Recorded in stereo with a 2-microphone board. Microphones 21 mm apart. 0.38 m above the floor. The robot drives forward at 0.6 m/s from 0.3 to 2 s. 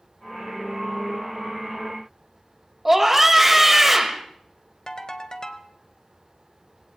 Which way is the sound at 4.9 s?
35° left (ahead or behind).